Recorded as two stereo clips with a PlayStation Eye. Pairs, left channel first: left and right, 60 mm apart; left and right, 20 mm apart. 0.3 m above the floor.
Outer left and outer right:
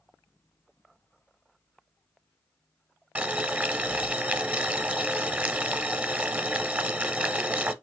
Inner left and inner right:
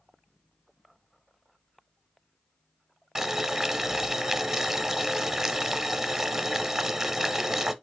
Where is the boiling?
25° right (ahead or behind), 0.7 m.